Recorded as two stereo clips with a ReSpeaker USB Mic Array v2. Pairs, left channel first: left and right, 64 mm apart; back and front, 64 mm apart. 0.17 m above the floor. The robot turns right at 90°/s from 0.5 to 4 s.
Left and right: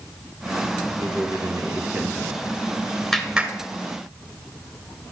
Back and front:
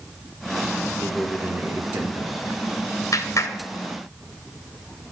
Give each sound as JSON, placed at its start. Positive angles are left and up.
{"t": 1.0, "sound": "a man speaking", "azimuth_deg": -115, "distance_m": 4.0}
{"t": 3.1, "sound": "a clap", "azimuth_deg": 165, "distance_m": 2.0}